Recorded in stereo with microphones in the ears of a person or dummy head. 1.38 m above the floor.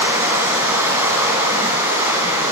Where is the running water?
10° right (ahead or behind), 3.5 m.